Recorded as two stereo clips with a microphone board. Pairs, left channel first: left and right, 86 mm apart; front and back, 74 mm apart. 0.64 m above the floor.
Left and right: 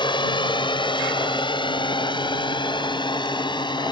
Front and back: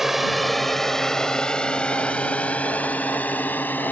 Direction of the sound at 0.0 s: 90° left.